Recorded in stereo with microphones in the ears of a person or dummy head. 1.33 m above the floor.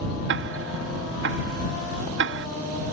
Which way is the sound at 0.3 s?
60° right (ahead or behind).